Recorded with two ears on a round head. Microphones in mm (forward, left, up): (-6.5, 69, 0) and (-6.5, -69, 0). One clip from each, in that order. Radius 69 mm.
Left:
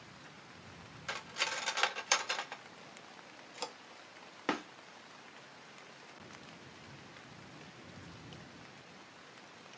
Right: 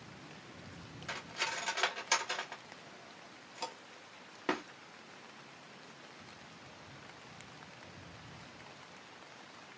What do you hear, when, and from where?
1.1 s cutlery clinking: 20° left (ahead or behind), 0.8 m